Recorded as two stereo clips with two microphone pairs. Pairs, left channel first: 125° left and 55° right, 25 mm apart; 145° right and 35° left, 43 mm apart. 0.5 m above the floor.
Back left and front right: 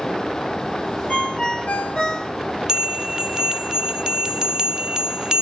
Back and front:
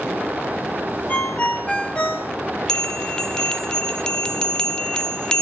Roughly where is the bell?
Right.